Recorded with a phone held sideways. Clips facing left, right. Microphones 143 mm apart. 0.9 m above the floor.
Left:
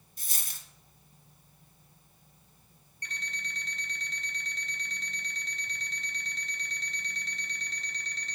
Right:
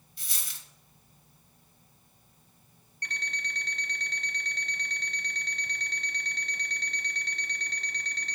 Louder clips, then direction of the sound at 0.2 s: Even; 45° left (ahead or behind).